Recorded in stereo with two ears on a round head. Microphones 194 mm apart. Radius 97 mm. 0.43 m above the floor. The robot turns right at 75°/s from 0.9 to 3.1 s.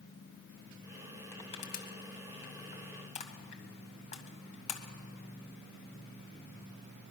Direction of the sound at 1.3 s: 10° left (ahead or behind).